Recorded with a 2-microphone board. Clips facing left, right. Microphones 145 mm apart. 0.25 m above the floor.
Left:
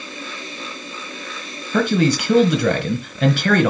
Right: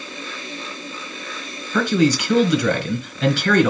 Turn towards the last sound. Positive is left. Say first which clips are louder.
# even
turn(degrees=55)  # may be behind; listen again after turning